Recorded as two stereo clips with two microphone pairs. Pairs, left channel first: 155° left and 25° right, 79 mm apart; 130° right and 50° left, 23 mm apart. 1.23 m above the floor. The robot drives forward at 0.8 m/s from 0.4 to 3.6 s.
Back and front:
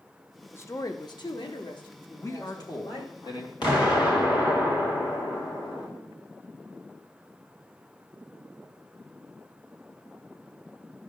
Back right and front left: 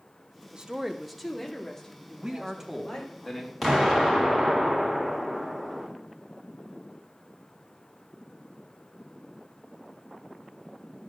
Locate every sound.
0.5 s a woman speaking: 95° left, 0.5 m; by 3.2 s 165° left, 2 m
2.2 s a man speaking: 100° left, 0.9 m; by 3.5 s 145° left, 1.5 m
3.6 s an explosion: 140° left, 1.7 m